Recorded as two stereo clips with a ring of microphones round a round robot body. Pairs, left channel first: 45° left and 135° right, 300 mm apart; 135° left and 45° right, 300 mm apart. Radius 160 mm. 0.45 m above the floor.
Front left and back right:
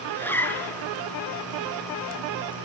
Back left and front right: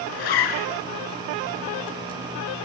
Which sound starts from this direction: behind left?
A zipper, at 0.1 s.